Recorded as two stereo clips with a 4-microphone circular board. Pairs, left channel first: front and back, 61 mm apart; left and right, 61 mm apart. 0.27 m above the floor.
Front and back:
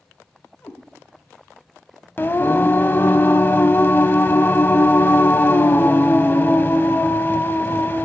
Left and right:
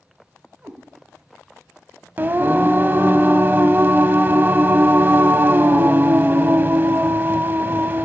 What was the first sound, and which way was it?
A cat meowing, 45° right.